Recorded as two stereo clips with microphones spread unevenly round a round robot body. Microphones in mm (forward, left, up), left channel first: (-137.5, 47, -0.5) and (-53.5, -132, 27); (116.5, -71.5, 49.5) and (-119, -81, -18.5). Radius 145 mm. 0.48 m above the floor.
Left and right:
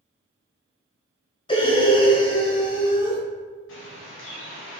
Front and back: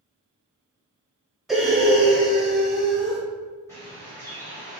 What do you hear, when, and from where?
1.5 s breathing: 125° left, 0.6 m
3.7 s a bird: 90° left, 0.9 m